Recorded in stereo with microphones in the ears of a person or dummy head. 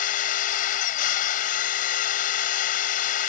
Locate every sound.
0.0 s a machine running: 45° left (ahead or behind)